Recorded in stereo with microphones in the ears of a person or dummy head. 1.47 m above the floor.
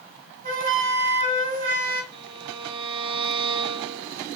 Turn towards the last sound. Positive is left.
turn(degrees=-25)  # may be behind; listen again after turning